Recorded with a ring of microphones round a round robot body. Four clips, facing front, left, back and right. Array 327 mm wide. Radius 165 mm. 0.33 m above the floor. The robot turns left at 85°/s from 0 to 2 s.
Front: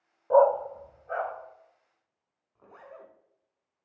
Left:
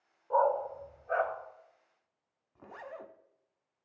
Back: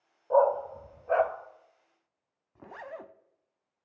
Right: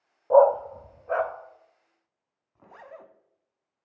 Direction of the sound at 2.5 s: 175° left.